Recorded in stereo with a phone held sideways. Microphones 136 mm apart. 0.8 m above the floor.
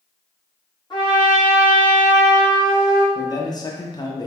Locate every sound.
0.9 s a trumpet: 35° left (ahead or behind), 1.2 m
3.1 s a man speaking: 30° left (ahead or behind), 0.6 m